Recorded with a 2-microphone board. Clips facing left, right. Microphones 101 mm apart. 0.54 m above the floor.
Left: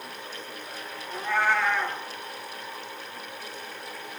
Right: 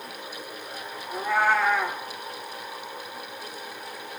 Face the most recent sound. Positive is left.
turn(degrees=-10)  # may be behind; listen again after turning